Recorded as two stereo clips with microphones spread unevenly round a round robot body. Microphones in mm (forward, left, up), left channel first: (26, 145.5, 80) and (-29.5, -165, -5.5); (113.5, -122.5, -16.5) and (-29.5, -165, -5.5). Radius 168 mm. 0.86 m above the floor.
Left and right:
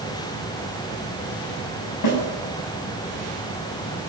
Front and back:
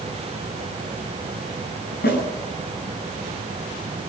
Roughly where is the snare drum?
Ahead left.